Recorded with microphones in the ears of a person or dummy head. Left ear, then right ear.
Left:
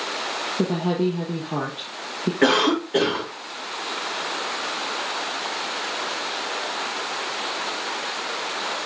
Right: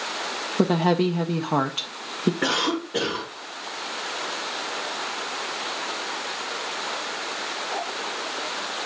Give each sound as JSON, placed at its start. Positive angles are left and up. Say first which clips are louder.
{"t": 0.6, "sound": "a woman speaking", "louder": "right 5 dB", "side_deg": -45, "distance_m": 0.6}
{"t": 2.4, "sound": "a cough", "louder": "left 7 dB", "side_deg": 50, "distance_m": 4.0}